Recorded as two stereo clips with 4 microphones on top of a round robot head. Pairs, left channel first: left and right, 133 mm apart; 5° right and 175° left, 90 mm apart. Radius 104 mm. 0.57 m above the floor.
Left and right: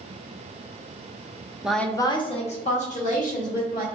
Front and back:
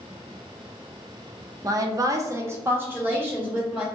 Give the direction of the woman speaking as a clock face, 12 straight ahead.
6 o'clock.